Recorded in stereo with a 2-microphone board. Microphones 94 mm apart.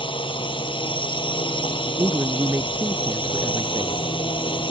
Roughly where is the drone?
Left.